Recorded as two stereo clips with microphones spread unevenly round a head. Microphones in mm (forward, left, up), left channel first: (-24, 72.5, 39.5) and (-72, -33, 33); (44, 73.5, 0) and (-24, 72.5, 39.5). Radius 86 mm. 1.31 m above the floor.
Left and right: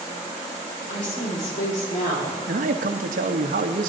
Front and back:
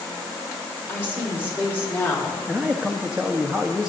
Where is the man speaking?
100° right, 1.3 m.